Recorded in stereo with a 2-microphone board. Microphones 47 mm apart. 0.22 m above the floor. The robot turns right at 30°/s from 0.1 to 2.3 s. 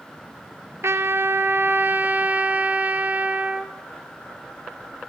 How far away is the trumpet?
About 1.3 m.